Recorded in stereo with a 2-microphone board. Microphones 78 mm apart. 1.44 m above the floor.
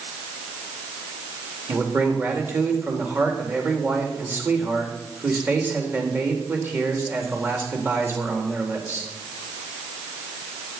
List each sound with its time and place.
1.7 s a man speaking: 25° right (ahead or behind), 3.5 m